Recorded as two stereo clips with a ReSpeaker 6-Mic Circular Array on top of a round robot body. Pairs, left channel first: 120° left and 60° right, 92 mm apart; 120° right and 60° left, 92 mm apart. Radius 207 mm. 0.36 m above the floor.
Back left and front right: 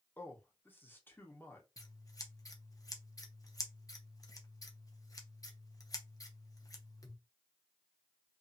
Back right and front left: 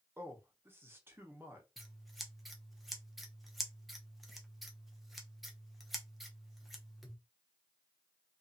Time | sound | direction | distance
0.2 | a man speaking | 85° left | 1.2 m
1.8 | scissors | 150° left | 1.0 m